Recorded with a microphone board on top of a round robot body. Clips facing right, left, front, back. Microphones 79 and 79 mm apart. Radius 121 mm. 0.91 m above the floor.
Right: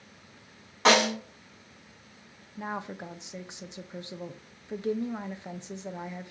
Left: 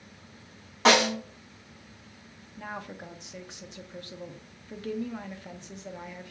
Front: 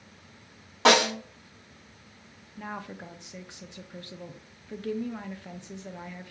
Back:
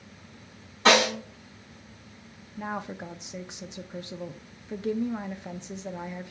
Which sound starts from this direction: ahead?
A snare drum, at 0.8 s.